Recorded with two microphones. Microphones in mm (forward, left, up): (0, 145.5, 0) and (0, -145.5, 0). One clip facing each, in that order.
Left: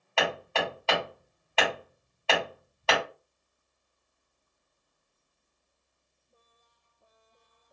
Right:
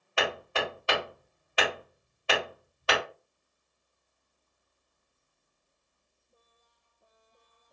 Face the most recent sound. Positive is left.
turn(degrees=-15)  # may be behind; listen again after turning